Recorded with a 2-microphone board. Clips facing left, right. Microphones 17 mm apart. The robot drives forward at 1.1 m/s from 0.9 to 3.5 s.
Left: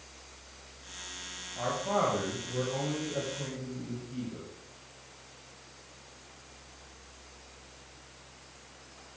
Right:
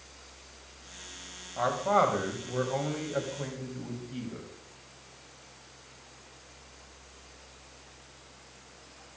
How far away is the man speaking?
About 3 m.